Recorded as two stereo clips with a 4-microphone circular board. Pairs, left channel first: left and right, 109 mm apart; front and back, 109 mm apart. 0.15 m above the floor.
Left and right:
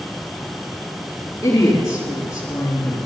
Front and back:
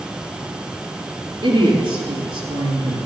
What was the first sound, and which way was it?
A woman speaking, 150° left.